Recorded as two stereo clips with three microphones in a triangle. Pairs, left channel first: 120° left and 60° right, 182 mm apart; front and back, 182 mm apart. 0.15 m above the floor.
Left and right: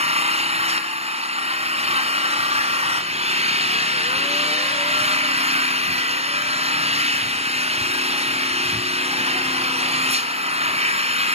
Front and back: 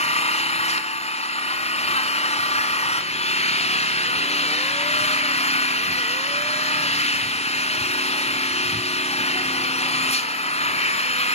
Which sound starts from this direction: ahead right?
An engine running, at 0.0 s.